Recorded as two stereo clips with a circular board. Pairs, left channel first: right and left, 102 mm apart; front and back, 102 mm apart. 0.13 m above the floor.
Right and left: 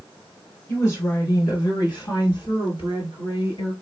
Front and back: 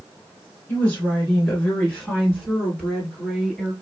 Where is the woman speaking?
55° right, 1.7 m; by 3.7 s 85° right, 3 m.